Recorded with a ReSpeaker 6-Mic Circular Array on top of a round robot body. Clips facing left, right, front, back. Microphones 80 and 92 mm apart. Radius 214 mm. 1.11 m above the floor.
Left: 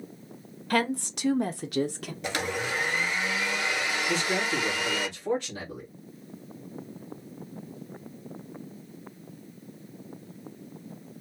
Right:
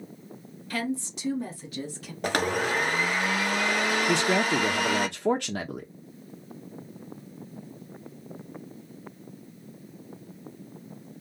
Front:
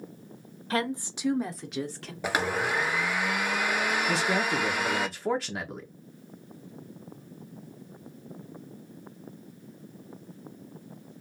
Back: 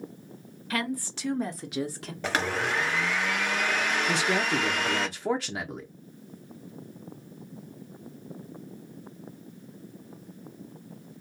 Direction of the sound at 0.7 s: 55° left.